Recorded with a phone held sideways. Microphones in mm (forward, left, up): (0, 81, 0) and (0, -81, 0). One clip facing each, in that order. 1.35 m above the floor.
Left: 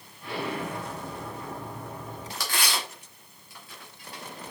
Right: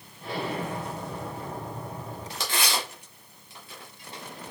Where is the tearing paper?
25° right (ahead or behind), 1.6 m.